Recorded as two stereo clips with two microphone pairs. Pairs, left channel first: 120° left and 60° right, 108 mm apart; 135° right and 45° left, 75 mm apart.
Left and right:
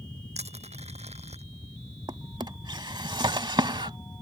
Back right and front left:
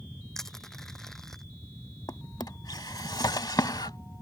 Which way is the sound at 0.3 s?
50° right.